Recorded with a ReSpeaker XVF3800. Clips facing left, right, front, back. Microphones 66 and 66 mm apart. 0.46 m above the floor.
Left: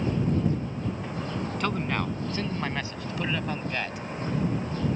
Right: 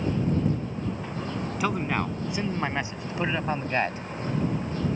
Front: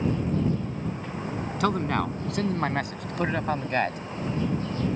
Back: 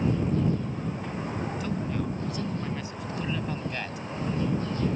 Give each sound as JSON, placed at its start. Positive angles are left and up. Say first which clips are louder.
{"t": 1.6, "sound": "a man speaking", "louder": "right 3 dB, front 6 dB", "azimuth_deg": -10}